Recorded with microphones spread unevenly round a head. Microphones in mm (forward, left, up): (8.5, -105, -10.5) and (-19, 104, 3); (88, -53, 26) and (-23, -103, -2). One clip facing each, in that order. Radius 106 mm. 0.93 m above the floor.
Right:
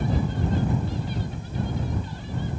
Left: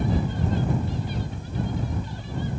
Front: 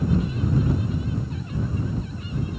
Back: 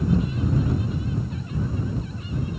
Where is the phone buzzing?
I don't hear a phone buzzing.